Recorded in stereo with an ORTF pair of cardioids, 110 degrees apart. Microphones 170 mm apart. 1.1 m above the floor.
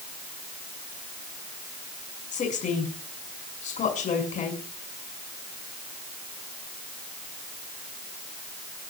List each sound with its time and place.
2.3 s a woman speaking: 45° left, 6 m